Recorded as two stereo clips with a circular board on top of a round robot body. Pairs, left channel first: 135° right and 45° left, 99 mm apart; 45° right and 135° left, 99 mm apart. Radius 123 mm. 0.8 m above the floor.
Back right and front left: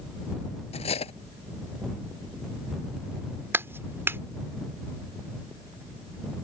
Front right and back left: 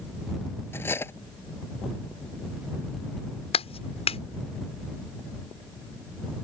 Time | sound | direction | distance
0.7 | cutlery clinking | 115° right | ?
3.5 | a clap | 25° right | ?